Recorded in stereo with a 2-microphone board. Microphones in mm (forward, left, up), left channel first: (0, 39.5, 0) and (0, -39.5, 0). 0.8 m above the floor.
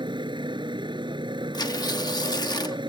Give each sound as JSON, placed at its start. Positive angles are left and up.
{"t": 0.0, "sound": "a motorcycle", "side_deg": -80}
{"t": 1.5, "sound": "tearing paper", "side_deg": 60}